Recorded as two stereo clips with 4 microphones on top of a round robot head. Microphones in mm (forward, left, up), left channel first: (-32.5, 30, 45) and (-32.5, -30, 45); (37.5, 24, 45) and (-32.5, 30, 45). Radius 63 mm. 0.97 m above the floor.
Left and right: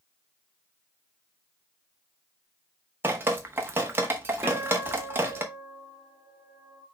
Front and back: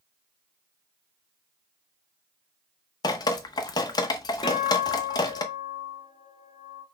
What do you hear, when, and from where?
3.0 s dripping: 30° right, 0.8 m
4.4 s a guitar: 20° right, 2 m